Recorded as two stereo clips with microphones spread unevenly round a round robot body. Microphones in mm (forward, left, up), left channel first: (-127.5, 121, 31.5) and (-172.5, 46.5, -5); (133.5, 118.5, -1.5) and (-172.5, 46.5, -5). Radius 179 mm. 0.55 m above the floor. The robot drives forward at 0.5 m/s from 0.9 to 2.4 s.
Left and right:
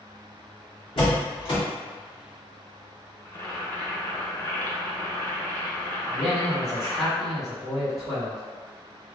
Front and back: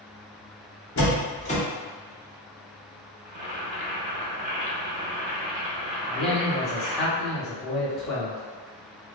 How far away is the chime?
I don't hear a chime.